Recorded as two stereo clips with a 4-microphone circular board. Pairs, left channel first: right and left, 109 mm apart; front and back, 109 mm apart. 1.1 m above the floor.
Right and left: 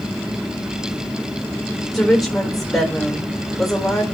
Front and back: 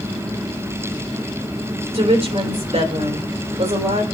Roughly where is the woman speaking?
Behind.